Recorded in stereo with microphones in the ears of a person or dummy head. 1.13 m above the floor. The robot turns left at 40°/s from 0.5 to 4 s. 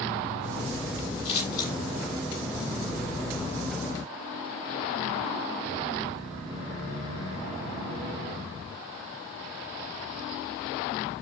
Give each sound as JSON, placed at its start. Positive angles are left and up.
{"t": 1.2, "sound": "scissors", "side_deg": 60, "distance_m": 7.5}